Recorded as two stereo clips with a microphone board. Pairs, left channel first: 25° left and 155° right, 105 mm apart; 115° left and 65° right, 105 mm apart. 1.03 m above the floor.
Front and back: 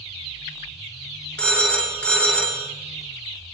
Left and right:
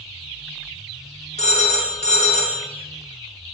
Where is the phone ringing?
100° left, 0.5 m.